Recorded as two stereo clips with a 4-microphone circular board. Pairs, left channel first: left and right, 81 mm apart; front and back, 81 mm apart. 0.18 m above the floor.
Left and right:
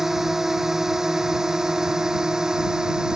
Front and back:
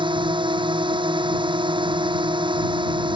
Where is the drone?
175° right; by 3.2 s 170° right.